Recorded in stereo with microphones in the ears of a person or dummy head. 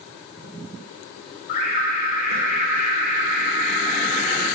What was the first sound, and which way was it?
An alarm, 55° left (ahead or behind).